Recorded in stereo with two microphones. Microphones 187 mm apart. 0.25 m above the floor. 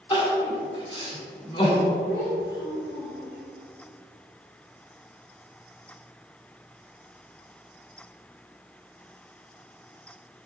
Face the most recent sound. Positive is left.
turn(degrees=-15)  # may be behind; listen again after turning